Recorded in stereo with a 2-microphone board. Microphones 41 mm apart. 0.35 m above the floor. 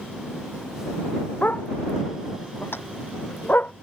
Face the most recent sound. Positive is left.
turn(degrees=70)  # may be behind; listen again after turning